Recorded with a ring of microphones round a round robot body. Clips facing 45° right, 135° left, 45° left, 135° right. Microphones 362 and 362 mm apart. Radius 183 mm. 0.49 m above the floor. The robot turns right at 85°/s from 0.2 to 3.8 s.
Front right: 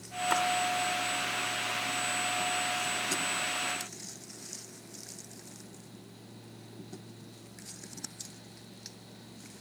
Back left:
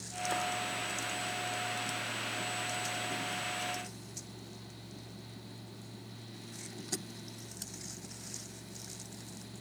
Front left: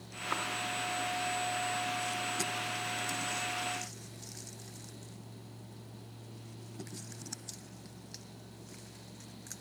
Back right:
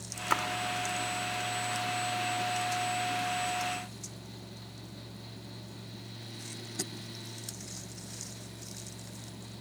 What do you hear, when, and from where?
0.3 s a splash: 105° right, 0.6 m; by 0.4 s 95° right, 0.6 m